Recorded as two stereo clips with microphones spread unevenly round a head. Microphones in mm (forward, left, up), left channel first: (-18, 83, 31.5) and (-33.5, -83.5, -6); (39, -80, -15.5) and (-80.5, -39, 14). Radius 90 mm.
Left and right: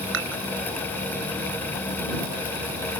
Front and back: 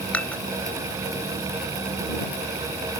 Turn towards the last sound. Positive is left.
turn(degrees=-100)